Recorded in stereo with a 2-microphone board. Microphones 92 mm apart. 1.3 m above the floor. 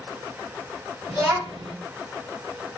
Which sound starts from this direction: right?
A child speaking, at 1.1 s.